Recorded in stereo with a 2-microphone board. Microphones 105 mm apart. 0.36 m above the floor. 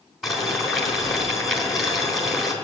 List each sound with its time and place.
0.2 s boiling: centre (ahead or behind), 3.5 m